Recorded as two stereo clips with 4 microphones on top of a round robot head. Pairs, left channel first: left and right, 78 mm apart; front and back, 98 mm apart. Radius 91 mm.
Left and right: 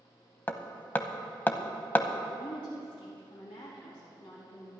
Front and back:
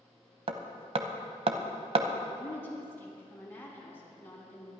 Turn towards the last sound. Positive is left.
turn(degrees=70)